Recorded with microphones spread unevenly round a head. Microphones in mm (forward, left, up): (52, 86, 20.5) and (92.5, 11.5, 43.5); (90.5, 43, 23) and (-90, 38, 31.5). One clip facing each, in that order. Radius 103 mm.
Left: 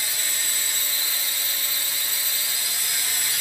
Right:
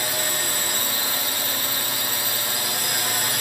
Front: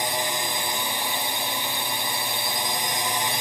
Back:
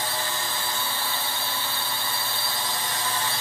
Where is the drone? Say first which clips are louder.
Right 7 dB, front 3 dB; 60° right.